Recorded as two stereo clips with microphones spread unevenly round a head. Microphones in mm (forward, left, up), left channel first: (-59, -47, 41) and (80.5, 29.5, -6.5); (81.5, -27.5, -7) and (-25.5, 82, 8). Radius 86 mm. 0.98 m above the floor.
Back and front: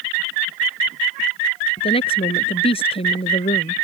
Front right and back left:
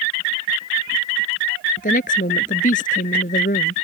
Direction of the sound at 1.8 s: 95° right.